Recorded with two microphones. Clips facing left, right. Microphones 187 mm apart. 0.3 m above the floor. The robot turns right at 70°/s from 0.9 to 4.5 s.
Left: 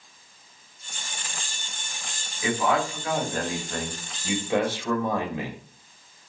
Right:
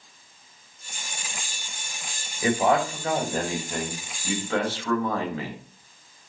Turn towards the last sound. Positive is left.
turn(degrees=30)